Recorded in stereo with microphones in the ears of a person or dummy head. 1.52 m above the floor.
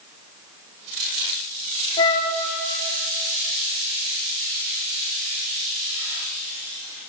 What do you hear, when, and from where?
2.0 s a flute: 25° left (ahead or behind), 0.8 m